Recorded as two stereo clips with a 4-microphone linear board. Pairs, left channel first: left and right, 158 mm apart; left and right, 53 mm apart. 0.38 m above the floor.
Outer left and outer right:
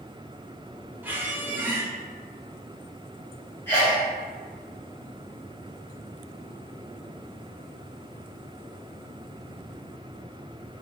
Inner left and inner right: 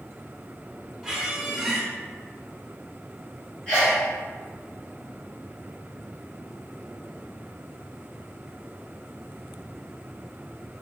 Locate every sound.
1.0 s a squeak: 10° right (ahead or behind), 0.8 m
3.7 s a sneeze: 15° left (ahead or behind), 1.5 m